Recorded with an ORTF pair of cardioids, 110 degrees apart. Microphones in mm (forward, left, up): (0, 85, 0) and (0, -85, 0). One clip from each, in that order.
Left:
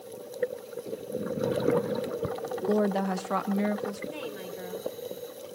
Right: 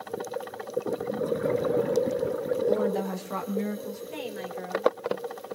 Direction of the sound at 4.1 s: 10° right.